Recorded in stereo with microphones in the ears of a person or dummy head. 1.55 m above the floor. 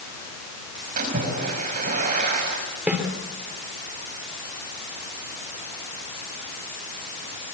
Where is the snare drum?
5° right (ahead or behind), 6.5 m.